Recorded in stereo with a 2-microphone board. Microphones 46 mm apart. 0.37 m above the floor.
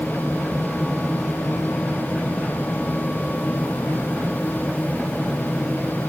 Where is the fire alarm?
No fire alarm in this recording.